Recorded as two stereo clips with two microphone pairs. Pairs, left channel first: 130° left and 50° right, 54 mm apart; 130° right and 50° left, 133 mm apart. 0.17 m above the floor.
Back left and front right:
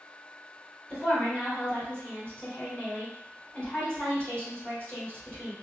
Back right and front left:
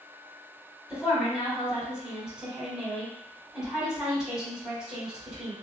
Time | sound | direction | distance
0.9 | a woman speaking | 130° left | 1.8 m